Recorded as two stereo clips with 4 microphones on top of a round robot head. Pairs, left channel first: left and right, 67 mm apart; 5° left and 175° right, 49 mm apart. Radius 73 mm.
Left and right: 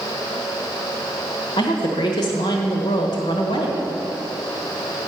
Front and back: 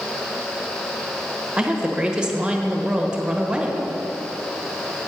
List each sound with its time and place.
1.6 s a woman speaking: 110° left, 1.3 m